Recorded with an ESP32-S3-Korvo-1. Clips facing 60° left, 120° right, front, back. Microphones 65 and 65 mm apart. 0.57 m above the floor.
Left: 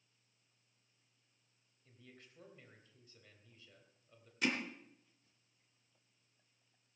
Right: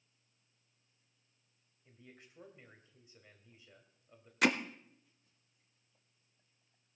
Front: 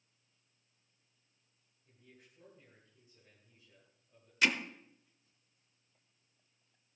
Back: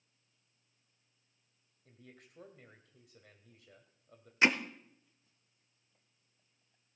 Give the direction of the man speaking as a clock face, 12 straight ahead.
6 o'clock.